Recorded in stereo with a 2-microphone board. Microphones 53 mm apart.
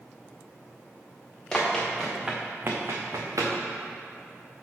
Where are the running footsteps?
10° left (ahead or behind), 1.8 m; by 3.5 s 85° right, 1.5 m.